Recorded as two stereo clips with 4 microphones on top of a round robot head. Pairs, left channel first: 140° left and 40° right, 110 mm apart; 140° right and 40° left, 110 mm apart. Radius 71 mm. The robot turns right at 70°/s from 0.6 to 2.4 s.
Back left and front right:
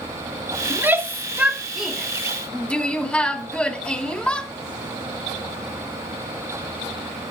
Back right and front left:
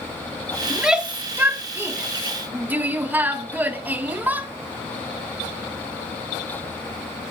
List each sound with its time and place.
0.7 s a shout: 40° right, 1.1 m; by 4.5 s 80° left, 1.1 m